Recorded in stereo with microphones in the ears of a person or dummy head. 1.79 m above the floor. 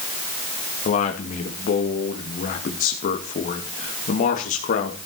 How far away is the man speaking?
About 2.5 m.